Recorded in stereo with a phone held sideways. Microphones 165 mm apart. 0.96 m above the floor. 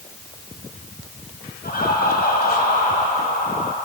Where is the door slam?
I don't hear a door slam.